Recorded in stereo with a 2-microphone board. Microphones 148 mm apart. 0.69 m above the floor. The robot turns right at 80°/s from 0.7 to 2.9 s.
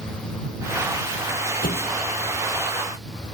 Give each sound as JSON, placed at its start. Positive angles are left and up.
{"t": 1.6, "sound": "a thud", "side_deg": 90}